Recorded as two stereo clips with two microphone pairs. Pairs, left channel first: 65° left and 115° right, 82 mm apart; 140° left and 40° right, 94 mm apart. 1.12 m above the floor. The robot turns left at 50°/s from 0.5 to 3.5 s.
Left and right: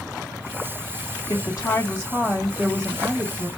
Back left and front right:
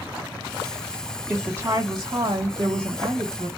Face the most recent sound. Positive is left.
turn(degrees=-75)